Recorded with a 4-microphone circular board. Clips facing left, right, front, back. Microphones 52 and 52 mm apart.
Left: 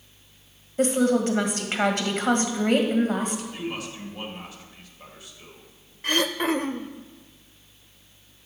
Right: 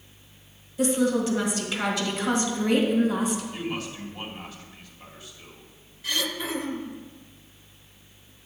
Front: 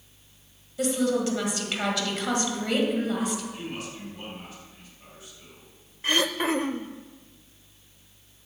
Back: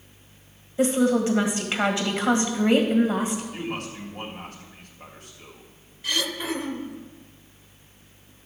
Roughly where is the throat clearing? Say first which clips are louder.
Left 6 dB, front 3 dB; ahead left.